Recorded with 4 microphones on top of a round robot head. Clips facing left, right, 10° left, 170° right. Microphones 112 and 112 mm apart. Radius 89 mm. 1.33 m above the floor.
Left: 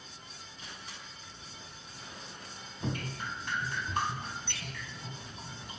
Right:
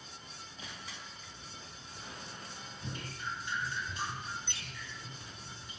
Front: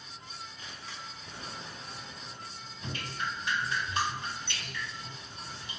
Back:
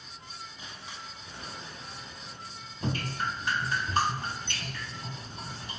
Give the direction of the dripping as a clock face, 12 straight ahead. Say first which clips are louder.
Left 6 dB, back 5 dB; 7 o'clock.